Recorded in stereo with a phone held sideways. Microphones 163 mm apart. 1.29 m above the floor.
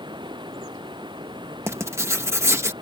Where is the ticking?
I don't hear ticking.